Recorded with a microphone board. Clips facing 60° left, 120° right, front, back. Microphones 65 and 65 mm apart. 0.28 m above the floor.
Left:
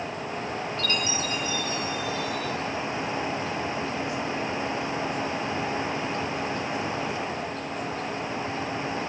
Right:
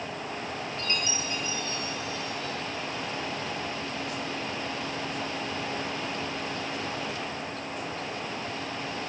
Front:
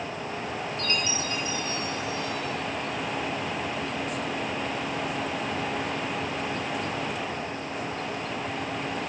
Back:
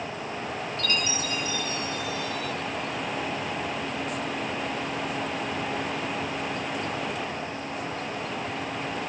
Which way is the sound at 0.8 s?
55° right.